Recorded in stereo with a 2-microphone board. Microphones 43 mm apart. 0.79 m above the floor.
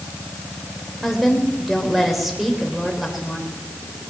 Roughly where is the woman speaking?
Centre.